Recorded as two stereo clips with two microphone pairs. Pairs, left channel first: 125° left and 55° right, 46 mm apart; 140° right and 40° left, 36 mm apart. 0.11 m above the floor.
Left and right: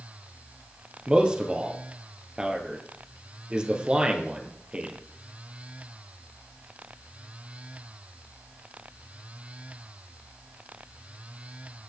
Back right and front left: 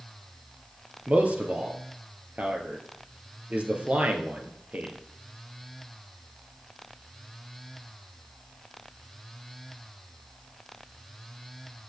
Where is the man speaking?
5° left, 2 m.